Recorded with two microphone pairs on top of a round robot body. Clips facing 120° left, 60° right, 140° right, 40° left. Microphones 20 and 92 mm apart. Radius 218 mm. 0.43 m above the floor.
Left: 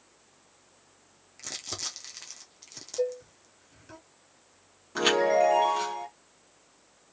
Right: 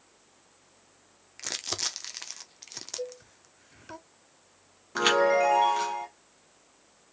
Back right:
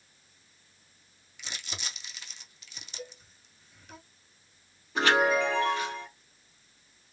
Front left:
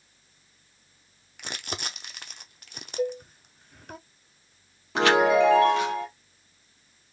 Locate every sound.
1.4 s crumpling: straight ahead, 0.7 m
3.0 s dishes clattering: 80° left, 0.7 m
5.0 s a chime: 15° left, 0.7 m